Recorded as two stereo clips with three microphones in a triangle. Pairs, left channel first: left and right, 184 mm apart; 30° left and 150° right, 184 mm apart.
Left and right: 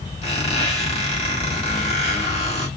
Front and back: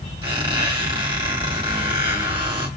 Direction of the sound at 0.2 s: 145° left.